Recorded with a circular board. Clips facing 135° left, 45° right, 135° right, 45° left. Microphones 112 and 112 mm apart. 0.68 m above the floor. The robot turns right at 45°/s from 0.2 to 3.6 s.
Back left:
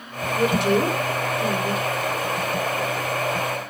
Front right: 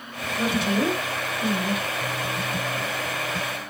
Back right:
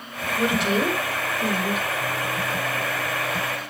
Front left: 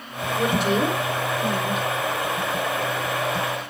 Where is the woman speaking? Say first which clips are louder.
Back left 4 dB, front left 1 dB; 125° left, 6.5 m; by 1.9 s 165° right, 6.5 m.